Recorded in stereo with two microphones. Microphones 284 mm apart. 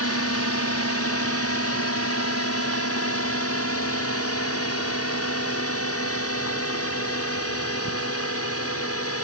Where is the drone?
55° left (ahead or behind).